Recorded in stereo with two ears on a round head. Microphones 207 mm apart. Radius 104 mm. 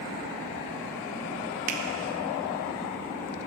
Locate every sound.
1.7 s a finger snap: 35° right (ahead or behind), 1.1 m